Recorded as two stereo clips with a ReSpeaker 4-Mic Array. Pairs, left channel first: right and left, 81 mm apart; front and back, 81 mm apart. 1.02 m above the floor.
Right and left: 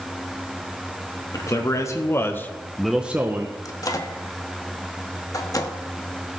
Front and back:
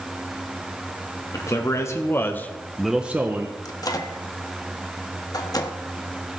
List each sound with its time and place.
1.3 s a man speaking: 45° right, 1.9 m; by 3.5 s 135° left, 1.1 m
3.6 s a microwave: 45° right, 1.0 m